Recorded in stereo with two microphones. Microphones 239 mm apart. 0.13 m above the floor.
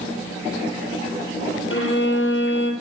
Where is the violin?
55° left (ahead or behind), 2.5 m.